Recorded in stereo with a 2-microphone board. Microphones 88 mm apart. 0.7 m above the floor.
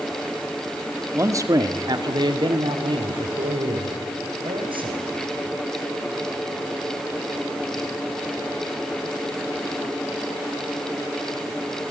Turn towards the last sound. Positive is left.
turn(degrees=-75)  # may be behind; listen again after turning